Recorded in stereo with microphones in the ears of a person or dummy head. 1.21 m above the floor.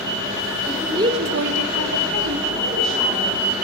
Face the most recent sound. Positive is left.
turn(degrees=-40)  # may be behind; listen again after turning